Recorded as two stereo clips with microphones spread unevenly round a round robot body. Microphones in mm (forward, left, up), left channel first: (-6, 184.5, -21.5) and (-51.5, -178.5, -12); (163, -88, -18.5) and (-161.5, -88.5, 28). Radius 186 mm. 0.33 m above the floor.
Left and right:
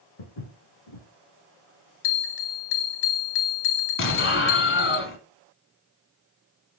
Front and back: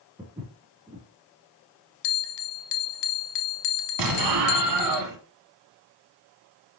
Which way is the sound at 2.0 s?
20° left.